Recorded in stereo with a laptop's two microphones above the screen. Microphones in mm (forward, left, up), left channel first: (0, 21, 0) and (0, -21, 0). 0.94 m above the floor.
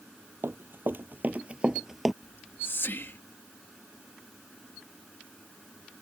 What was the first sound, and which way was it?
Running footsteps, 65° right (ahead or behind).